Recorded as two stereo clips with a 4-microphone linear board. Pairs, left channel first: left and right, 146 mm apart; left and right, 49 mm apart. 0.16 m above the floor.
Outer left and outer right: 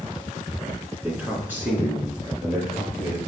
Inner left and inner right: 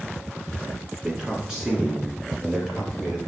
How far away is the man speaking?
About 1.5 m.